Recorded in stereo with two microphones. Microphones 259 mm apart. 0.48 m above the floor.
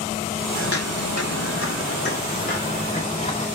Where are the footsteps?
55° left (ahead or behind), 1.5 m; by 3.5 s 20° left (ahead or behind), 4 m.